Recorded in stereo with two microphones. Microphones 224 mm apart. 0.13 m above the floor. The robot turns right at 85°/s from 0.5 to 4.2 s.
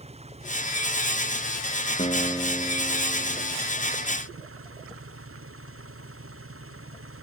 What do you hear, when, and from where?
0.0 s an engine running: 30° right; by 7.2 s 75° right
2.0 s a guitar: 130° left; by 3.6 s 95° right